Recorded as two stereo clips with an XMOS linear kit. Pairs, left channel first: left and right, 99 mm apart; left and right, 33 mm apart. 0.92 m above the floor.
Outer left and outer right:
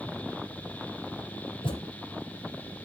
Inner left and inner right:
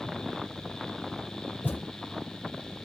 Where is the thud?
55° left (ahead or behind), 7 m.